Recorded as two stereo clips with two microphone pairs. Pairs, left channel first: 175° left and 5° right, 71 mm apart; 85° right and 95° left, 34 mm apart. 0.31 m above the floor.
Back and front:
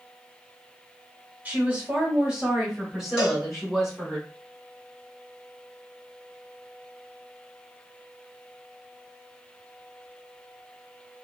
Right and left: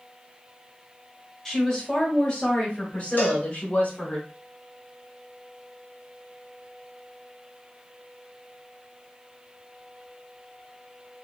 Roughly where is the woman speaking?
Ahead right.